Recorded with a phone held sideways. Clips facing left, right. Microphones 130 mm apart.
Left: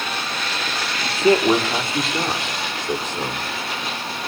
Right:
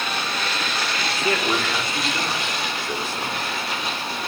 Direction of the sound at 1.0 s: 35° left (ahead or behind).